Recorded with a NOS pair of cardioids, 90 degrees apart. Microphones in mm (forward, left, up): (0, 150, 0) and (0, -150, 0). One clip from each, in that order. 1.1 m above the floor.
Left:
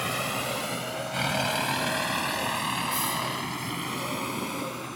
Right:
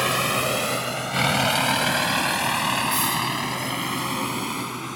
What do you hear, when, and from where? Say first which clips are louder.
0.0 s a vehicle: right 7 dB; 50° right; by 5.0 s 40° right